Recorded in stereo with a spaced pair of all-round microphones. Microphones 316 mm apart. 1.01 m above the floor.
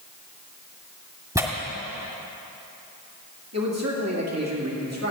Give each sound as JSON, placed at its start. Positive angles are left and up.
{"t": 1.4, "sound": "tearing paper", "side_deg": -10, "distance_m": 1.6}
{"t": 3.5, "sound": "a man speaking", "side_deg": -50, "distance_m": 2.0}